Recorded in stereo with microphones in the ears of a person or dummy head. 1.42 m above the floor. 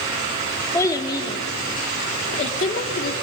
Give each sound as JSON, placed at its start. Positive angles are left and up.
{"t": 0.7, "sound": "a child speaking", "side_deg": 20, "distance_m": 2.0}